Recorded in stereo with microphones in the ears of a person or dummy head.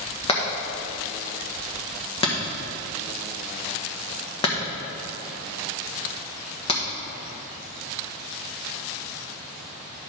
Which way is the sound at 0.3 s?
25° left (ahead or behind).